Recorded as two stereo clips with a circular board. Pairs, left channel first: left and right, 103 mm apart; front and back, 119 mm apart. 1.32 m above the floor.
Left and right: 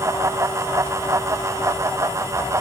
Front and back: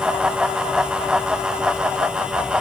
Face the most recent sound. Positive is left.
No sound to turn to.